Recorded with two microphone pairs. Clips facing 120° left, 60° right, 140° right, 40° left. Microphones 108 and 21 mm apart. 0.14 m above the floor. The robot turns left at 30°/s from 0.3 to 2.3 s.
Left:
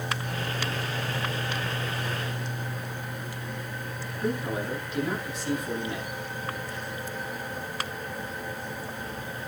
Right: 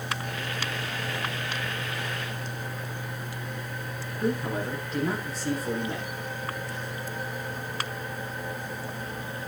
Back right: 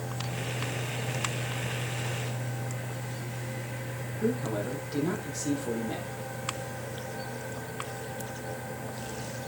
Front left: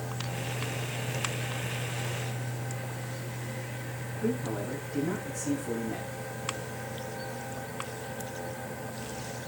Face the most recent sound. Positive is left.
turn(degrees=-110)